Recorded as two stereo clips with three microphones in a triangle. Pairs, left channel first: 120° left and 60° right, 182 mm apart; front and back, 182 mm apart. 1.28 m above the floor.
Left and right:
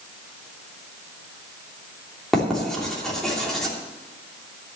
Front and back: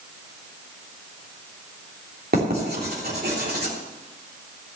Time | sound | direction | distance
2.3 | writing | 150° right | 3 m